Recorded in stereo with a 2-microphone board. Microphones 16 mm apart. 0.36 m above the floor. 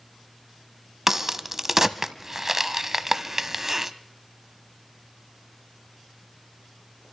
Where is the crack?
25° right (ahead or behind), 0.6 m.